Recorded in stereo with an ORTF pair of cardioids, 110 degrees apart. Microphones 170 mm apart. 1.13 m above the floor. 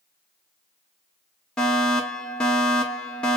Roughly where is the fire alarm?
Ahead.